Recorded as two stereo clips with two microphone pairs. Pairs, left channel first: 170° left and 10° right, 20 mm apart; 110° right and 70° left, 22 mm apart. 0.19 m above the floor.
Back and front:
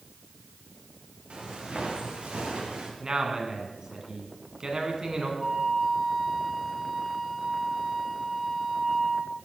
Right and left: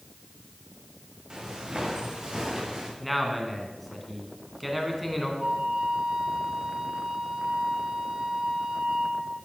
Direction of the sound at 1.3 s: 15° left.